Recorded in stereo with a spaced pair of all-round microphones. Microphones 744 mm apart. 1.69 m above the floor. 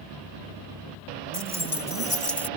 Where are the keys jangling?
45° left (ahead or behind); by 2.5 s 50° left (ahead or behind).